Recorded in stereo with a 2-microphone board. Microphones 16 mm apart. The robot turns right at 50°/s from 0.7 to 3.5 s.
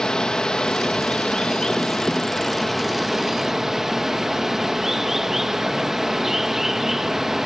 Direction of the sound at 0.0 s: 65° left.